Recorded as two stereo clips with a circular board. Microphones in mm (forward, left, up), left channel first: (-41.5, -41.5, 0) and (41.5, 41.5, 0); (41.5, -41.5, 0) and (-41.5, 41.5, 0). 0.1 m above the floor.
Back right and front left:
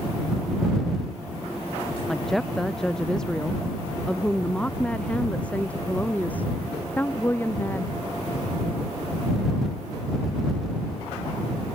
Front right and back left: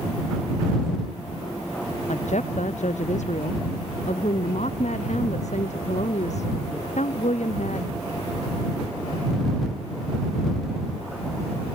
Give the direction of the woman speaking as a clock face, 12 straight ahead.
2 o'clock.